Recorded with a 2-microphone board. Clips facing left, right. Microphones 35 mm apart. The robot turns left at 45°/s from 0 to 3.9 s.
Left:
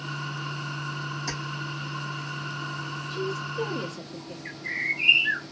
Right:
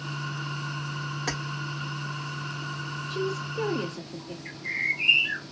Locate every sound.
1.3 s keys jangling: 55° right (ahead or behind), 1.2 m; by 1.4 s 60° right (ahead or behind), 1.2 m
3.1 s a woman speaking: 105° right, 1.6 m; by 4.3 s 145° right, 1.6 m
4.5 s a bird: 15° left (ahead or behind), 1.6 m